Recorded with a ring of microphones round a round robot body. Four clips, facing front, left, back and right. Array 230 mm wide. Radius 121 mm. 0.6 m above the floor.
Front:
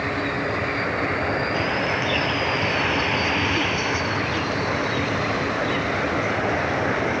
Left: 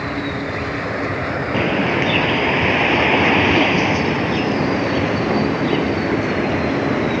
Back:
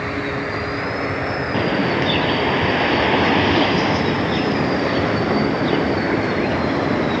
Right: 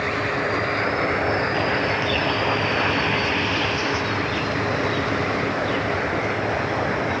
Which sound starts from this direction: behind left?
A bird, at 1.5 s.